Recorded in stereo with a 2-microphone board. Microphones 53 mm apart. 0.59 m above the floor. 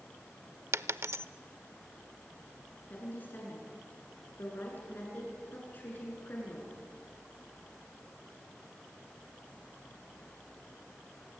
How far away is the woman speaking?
About 8 m.